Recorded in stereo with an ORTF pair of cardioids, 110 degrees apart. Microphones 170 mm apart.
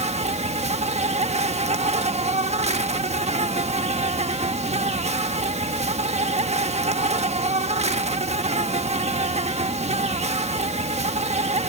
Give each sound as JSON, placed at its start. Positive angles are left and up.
{"t": 0.0, "sound": "an insect", "azimuth_deg": -40}